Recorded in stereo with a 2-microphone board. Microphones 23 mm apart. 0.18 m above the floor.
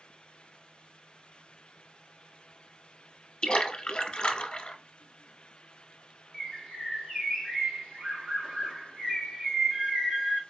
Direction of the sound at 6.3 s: 45° right (ahead or behind).